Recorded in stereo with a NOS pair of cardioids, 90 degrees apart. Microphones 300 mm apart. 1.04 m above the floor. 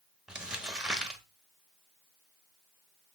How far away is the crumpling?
About 0.8 m.